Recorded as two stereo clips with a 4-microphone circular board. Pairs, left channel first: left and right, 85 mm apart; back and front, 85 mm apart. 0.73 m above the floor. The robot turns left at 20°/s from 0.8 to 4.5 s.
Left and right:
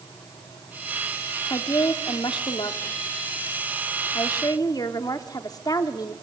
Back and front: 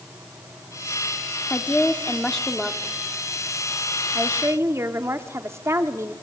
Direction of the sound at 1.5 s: 115° left.